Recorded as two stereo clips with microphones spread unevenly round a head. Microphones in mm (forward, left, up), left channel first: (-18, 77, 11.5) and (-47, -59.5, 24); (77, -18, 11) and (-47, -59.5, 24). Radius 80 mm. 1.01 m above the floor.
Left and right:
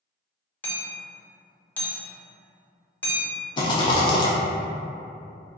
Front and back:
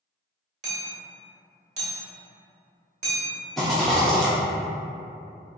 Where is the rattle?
115° left, 0.5 m.